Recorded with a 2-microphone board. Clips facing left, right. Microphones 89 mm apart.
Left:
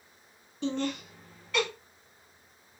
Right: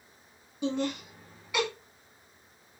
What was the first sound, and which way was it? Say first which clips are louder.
Laughter: right 1 dB; 10° right (ahead or behind).